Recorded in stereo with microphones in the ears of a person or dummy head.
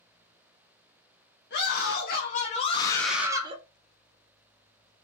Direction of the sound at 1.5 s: 55° left (ahead or behind).